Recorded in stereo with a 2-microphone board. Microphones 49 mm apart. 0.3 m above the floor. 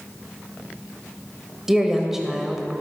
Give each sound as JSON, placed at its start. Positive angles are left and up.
{"t": 1.7, "sound": "a woman speaking", "side_deg": -10, "distance_m": 0.9}